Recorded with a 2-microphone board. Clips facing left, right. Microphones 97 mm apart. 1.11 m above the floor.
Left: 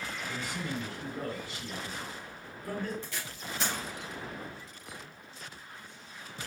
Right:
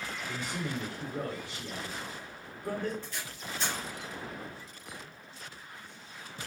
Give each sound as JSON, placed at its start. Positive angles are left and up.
{"t": 0.3, "sound": "a man speaking", "side_deg": -90, "distance_m": 2.5}
{"t": 3.0, "sound": "tape being pulled", "side_deg": 80, "distance_m": 1.8}